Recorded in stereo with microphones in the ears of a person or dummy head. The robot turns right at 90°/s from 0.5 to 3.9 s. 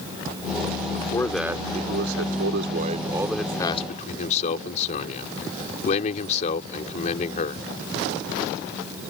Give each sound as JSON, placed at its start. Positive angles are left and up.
{"t": 0.9, "sound": "a man speaking", "azimuth_deg": 140}